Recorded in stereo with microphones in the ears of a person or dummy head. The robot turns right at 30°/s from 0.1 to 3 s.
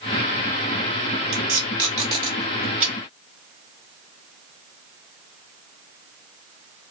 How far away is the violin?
I don't hear a violin.